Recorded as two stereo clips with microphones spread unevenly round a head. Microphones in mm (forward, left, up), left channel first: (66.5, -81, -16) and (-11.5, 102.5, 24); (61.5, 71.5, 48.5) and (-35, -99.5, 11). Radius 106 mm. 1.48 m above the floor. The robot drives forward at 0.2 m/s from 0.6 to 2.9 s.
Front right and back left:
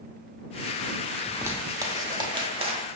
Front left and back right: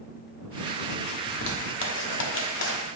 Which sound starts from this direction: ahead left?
A zipper, at 1.3 s.